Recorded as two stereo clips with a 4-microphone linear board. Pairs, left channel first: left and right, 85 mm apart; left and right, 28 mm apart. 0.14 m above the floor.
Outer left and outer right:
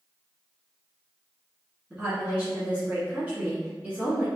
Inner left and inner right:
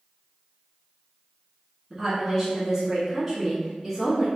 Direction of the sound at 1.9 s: 15° right (ahead or behind).